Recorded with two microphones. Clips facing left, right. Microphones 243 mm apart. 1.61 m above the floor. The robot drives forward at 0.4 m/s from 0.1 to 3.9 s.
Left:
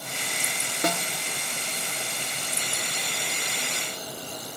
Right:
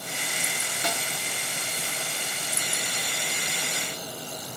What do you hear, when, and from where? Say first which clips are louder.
0.8 s a snare drum: left 6 dB; 55° left (ahead or behind); by 1.1 s 60° left (ahead or behind)